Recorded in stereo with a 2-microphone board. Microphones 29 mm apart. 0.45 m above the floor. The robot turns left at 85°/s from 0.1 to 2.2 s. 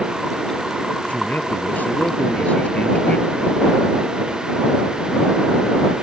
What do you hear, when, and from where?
1.1 s a man speaking: 140° left; by 3.5 s 40° left